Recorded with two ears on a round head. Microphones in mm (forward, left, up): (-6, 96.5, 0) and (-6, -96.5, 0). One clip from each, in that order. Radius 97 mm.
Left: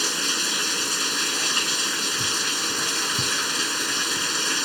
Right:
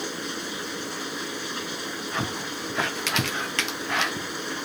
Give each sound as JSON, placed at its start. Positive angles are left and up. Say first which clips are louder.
{"t": 0.0, "sound": "running water", "louder": "left 8 dB", "side_deg": 70}